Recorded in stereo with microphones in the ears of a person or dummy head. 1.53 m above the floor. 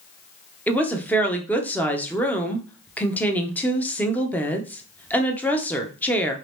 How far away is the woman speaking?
About 0.7 m.